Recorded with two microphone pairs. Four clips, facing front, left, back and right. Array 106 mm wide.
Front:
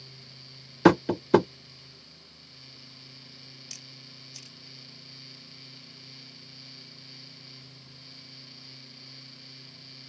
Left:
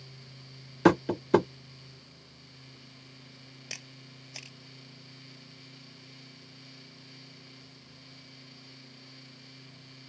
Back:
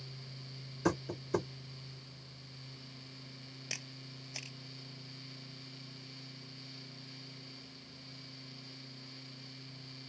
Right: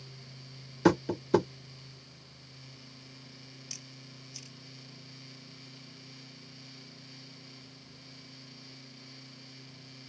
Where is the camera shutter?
125° left.